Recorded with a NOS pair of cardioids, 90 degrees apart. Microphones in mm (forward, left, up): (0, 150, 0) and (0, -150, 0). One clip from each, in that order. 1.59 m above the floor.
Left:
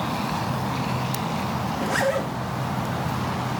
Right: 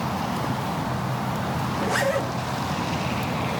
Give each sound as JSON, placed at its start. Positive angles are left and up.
{"t": 1.7, "sound": "a zipper", "azimuth_deg": -5, "distance_m": 1.9}